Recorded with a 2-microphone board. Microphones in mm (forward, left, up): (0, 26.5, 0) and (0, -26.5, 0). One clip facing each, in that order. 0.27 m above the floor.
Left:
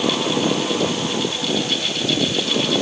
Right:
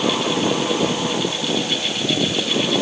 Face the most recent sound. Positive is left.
No sound to turn to.